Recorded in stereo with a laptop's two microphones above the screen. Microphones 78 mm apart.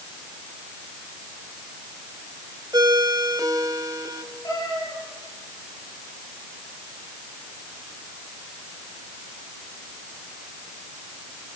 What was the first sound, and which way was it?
A ringtone, 55° right (ahead or behind).